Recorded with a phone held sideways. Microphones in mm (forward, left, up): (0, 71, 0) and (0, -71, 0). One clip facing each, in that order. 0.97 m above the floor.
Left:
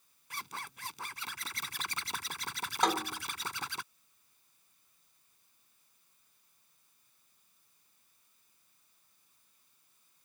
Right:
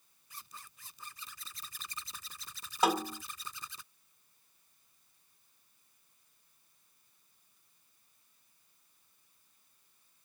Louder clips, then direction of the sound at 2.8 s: Right 1 dB; 5° right (ahead or behind).